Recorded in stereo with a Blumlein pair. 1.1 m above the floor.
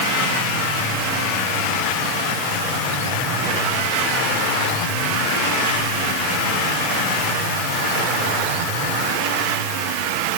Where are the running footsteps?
I don't hear running footsteps.